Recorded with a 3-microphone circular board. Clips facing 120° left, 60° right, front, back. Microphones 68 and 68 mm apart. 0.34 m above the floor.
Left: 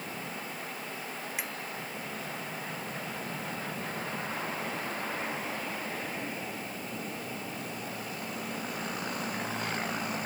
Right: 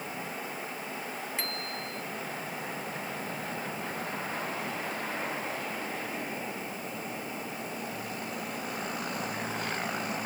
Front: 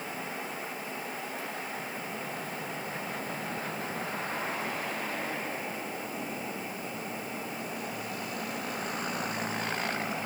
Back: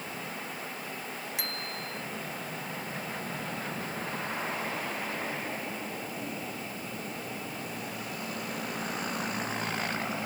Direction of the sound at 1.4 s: 160° right.